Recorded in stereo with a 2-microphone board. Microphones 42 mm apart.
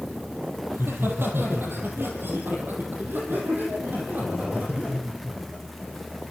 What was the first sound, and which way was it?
Laughter, 70° right (ahead or behind).